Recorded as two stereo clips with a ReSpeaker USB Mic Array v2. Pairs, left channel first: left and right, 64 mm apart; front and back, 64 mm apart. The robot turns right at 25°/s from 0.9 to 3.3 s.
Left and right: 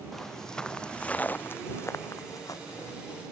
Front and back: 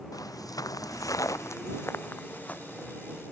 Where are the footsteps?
5° left; by 2.9 s 75° left.